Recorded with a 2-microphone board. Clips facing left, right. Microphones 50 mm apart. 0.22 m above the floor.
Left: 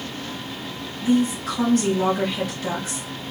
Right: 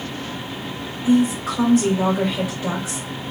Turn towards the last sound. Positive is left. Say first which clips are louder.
# right 3 dB
turn(degrees=-10)  # may be behind; listen again after turning